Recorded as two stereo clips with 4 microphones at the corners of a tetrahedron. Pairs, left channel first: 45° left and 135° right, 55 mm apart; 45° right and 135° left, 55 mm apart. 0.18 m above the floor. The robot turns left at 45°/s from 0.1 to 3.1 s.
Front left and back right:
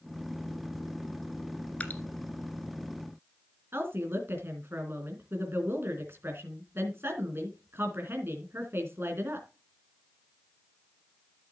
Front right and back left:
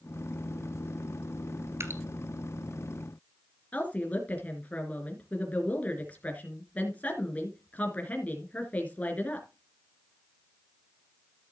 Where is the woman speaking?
100° right, 2.5 m.